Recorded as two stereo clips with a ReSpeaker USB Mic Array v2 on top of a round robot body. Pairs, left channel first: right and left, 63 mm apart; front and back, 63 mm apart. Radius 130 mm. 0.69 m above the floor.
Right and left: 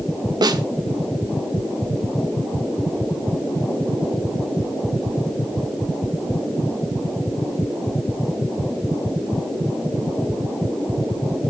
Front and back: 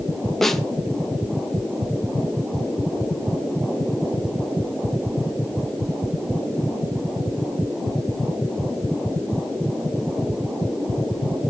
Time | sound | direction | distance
0.4 | a snare drum | 85° left | 1.3 m